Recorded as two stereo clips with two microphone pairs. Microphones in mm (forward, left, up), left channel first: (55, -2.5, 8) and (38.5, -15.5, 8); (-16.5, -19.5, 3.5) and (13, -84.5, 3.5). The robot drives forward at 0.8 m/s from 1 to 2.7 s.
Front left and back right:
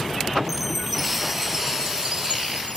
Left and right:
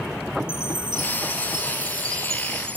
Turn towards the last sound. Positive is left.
turn(degrees=-125)